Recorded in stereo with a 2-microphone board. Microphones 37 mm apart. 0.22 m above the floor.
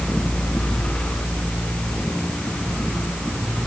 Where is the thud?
I don't hear a thud.